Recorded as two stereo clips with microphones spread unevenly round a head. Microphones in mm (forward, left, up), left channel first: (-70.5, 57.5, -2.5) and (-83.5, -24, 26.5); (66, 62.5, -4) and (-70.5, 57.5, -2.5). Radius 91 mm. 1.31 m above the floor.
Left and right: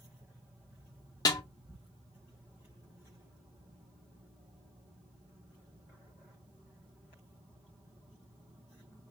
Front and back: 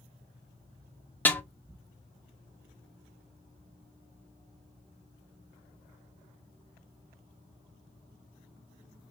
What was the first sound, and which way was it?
A snare drum, 80° left.